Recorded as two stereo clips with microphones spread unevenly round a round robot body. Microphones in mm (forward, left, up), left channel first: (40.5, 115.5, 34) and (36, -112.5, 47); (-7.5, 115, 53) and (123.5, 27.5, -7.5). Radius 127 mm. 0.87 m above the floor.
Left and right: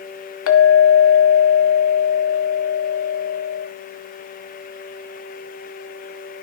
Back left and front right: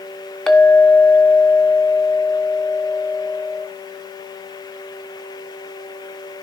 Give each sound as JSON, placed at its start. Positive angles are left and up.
{"t": 0.5, "sound": "a clink", "azimuth_deg": 60, "distance_m": 1.3}